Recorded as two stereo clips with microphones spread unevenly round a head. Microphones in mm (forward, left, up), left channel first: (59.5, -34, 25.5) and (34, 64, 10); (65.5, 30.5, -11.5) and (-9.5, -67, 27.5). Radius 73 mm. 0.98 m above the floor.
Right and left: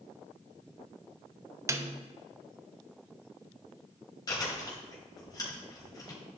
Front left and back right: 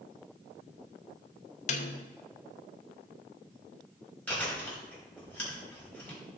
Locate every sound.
1.7 s a snare drum: 45° left, 0.9 m
4.3 s chewing: 25° right, 4.5 m